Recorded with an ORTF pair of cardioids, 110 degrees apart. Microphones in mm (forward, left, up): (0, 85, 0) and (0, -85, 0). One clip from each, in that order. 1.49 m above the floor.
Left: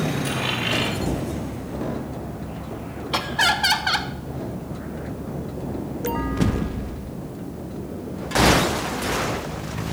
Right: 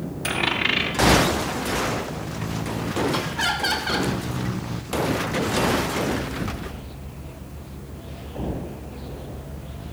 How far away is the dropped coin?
About 5.5 m.